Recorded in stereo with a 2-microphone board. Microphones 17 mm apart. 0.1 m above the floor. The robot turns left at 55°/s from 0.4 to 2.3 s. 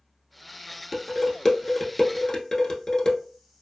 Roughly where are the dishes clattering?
Centre.